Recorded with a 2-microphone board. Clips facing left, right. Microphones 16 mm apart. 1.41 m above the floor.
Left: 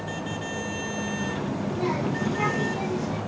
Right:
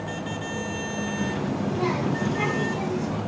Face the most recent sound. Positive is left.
turn(degrees=15)  # may be behind; listen again after turning